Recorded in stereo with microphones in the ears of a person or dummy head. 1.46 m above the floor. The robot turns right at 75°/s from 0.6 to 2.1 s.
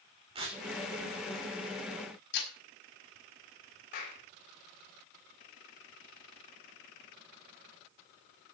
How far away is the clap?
About 7 m.